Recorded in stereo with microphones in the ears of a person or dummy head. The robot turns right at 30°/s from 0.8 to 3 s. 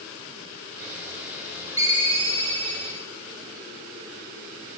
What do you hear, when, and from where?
1.8 s a ringtone: 160° right, 0.7 m; by 3.0 s 125° right, 0.7 m